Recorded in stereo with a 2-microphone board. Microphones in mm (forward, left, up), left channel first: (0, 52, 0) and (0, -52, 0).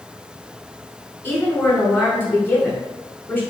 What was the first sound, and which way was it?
A woman speaking, 20° left (ahead or behind).